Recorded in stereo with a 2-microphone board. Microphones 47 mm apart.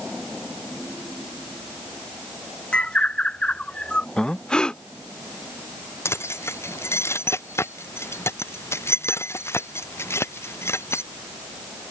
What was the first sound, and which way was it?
A bird, 25° left (ahead or behind).